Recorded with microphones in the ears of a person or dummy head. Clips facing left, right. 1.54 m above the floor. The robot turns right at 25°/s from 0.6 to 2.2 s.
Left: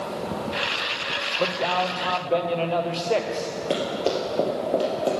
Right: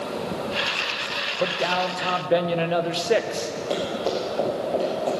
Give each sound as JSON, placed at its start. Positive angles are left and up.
{"t": 1.4, "sound": "a man speaking", "side_deg": -5, "distance_m": 0.7}
{"t": 3.7, "sound": "running footsteps", "side_deg": 15, "distance_m": 2.0}